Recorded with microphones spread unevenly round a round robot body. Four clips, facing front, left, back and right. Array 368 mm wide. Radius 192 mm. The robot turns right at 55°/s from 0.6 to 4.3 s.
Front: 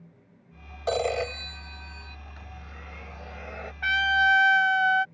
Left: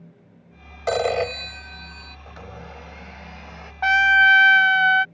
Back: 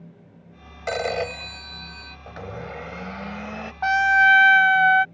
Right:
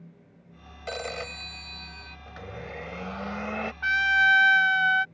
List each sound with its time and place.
0.9 s a phone ringing: 95° left; by 2.2 s 170° left
2.3 s a blender: 165° left; by 3.7 s 115° right
3.8 s a trumpet: 120° left; by 5.0 s 145° left